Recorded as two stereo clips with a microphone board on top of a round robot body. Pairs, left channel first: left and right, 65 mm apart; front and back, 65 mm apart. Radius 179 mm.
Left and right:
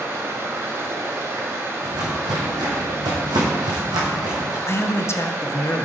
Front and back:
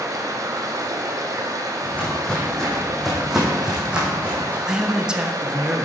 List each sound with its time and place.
0.0 s running water: 145° right, 1.2 m
1.8 s footsteps: 70° right, 3 m; by 4.6 s 115° right, 3 m
4.7 s a man speaking: 105° left, 1.2 m